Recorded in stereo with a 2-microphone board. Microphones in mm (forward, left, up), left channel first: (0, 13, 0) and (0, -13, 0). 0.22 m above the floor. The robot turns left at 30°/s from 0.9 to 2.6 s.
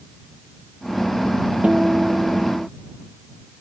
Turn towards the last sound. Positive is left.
turn(degrees=-80)